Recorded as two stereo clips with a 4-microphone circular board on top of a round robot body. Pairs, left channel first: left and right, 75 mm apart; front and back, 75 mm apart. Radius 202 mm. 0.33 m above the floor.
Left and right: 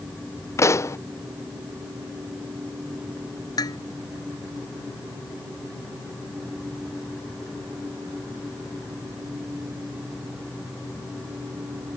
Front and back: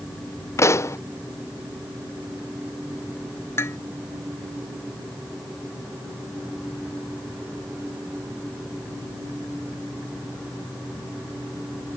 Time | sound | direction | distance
0.6 | a pop | 45° left | ?
3.6 | dishes clattering | 55° left | ?